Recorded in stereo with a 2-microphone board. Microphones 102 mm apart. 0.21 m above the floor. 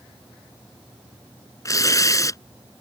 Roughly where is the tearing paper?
Left.